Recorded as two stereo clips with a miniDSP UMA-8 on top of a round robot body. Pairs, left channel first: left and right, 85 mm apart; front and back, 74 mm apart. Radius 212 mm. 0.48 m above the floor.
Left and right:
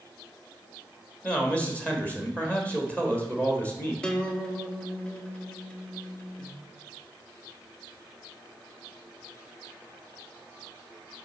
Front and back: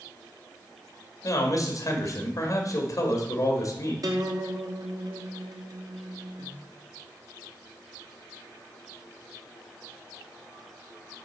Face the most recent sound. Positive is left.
turn(degrees=170)